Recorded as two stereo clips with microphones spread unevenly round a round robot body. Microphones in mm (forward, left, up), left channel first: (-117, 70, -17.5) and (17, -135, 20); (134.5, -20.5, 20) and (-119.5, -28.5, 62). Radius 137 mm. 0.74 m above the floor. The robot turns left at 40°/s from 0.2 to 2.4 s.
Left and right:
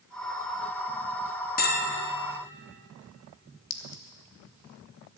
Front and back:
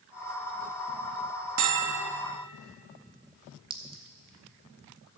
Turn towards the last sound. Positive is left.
turn(degrees=110)